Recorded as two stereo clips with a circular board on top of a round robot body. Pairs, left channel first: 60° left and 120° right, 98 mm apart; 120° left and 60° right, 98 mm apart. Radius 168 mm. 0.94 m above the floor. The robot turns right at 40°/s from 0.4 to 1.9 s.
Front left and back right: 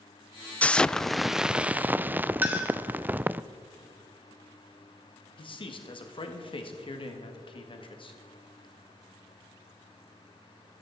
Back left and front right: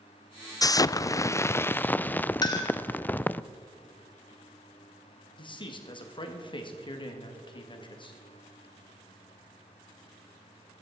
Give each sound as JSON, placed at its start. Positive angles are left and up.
{"t": 0.6, "sound": "an explosion", "azimuth_deg": 130, "distance_m": 0.5}
{"t": 2.4, "sound": "a clink", "azimuth_deg": 170, "distance_m": 1.5}
{"t": 5.4, "sound": "a man speaking", "azimuth_deg": 90, "distance_m": 2.0}